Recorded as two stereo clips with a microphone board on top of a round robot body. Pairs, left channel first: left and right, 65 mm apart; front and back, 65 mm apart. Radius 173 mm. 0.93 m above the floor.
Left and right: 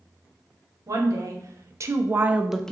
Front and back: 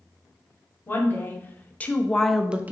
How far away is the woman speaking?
About 1.1 m.